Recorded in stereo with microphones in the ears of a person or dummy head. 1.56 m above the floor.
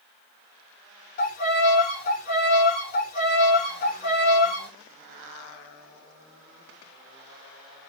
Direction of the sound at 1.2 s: 45° left (ahead or behind).